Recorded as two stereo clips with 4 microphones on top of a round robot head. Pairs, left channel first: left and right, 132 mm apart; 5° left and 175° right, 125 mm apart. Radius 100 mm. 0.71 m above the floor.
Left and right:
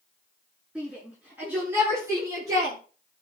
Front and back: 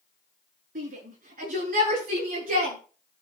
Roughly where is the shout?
Behind.